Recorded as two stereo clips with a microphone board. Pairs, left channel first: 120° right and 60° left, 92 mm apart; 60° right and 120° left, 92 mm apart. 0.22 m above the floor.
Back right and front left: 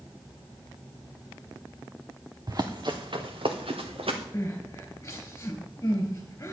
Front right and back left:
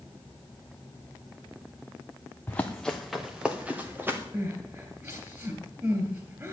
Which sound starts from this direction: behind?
Crying, at 4.3 s.